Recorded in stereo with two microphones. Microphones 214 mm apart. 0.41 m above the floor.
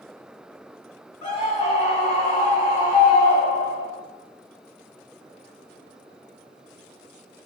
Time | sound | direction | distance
1.2 | a scream | 15° right (ahead or behind) | 1.3 m